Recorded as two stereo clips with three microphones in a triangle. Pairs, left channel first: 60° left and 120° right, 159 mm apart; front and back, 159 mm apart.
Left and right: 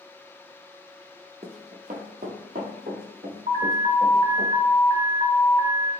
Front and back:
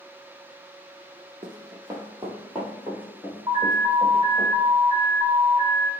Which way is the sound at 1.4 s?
140° right.